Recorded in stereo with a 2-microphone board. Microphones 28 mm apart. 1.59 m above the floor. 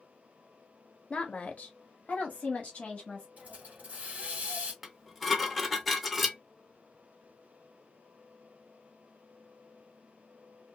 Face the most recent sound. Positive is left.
turn(degrees=0)  # may be behind; listen again after turning